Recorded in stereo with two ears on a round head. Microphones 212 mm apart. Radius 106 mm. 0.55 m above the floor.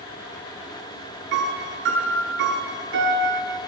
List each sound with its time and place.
1.3 s a piano: 50° right (ahead or behind), 8 m